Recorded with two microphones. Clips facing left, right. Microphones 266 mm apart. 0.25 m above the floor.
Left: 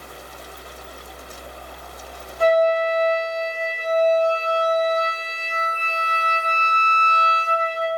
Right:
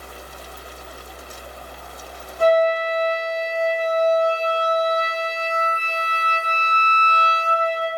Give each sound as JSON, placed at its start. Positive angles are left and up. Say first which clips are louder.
{"t": 2.4, "sound": "a flute", "louder": "even", "side_deg": -50, "distance_m": 1.3}